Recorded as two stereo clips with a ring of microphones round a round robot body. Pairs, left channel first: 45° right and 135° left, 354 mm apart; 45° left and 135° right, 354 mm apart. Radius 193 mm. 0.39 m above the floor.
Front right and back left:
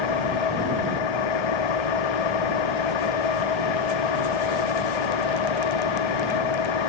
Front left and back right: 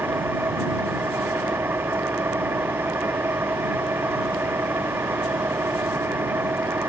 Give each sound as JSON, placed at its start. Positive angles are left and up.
{"t": 0.0, "sound": "an engine running", "azimuth_deg": -50}